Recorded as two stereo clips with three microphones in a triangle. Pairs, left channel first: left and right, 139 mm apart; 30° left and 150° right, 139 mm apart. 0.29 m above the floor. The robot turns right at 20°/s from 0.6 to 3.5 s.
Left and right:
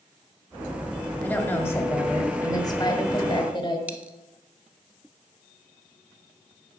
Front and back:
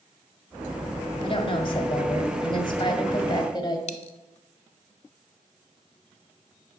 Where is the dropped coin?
10° right, 0.7 m.